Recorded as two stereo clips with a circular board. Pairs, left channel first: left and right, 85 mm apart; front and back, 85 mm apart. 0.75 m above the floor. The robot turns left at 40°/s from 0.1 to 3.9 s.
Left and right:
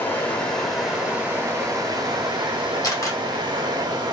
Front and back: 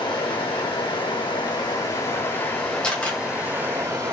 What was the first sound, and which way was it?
Running water, 30° left.